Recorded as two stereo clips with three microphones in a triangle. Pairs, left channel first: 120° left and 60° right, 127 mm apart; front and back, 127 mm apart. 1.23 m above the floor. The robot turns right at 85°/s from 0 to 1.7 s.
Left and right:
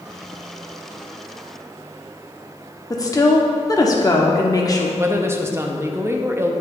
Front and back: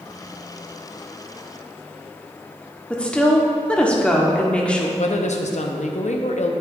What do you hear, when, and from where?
2.9 s a woman speaking: 75° left, 0.7 m
5.0 s a woman speaking: 10° left, 0.6 m